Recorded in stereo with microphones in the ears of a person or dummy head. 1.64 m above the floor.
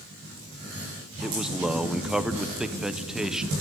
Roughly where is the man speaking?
Centre.